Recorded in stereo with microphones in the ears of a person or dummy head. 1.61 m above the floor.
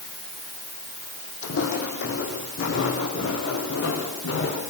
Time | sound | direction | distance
1.4 | footsteps | 70° left (ahead or behind) | 4.5 m